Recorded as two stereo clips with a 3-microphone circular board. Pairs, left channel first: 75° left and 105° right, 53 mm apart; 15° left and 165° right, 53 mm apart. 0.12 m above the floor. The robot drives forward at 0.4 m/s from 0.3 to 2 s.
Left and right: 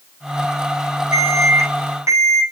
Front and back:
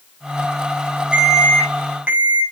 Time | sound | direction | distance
1.1 | an alarm | 100° right | 8 m